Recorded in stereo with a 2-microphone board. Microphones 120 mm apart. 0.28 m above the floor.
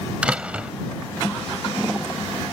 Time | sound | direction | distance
0.2 | a door slam | 10° right (ahead or behind) | ?